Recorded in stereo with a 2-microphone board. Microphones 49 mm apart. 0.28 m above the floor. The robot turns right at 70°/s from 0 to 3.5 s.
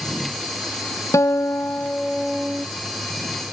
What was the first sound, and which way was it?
A guitar, 100° left.